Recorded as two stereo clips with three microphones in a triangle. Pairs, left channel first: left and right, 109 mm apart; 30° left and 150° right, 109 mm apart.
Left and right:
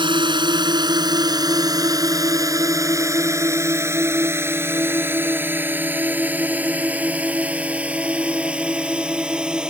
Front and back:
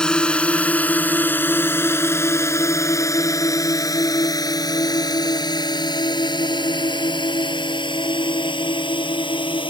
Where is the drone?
50° right; by 9.7 s 10° right.